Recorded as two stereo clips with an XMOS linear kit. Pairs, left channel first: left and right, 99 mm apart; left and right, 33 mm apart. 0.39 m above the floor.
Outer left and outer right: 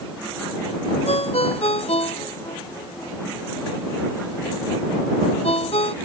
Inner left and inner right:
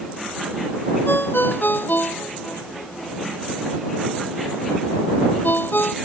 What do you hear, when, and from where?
1.1 s a ringtone: 85° left